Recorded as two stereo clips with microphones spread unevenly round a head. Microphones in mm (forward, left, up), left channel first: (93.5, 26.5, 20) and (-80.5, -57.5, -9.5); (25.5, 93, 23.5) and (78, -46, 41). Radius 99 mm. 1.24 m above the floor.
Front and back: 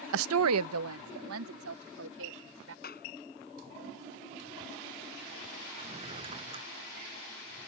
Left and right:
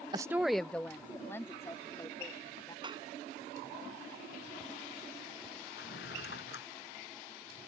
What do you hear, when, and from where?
0.1 s a woman speaking: 135° right; by 2.7 s 175° right
2.8 s a clap: 15° right
5.8 s a drawer: 140° left